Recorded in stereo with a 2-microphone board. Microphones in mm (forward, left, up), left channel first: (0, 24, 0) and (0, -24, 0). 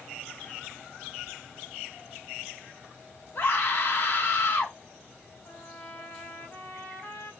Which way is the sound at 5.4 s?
55° left (ahead or behind).